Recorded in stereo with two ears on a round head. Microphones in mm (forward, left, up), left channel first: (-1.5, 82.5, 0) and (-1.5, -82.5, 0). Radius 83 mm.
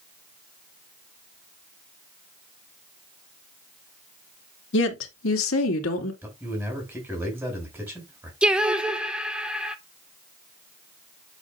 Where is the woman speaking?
70° left (ahead or behind), 1.9 m; by 6.1 s 80° left, 2.5 m.